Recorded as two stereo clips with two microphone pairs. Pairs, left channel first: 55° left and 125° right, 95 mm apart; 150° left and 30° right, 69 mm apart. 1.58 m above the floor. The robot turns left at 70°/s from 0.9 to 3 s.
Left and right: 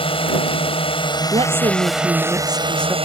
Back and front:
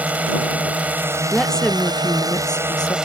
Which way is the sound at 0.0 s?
35° left.